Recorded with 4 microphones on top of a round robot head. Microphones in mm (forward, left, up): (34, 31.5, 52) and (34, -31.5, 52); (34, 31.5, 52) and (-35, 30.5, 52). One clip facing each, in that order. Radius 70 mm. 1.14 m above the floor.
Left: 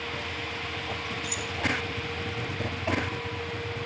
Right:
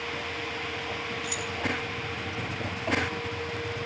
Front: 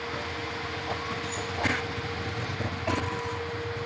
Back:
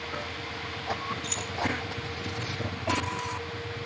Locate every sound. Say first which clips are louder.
1.2 s keys jangling: right 1 dB, front 3 dB; 150° right, 0.7 m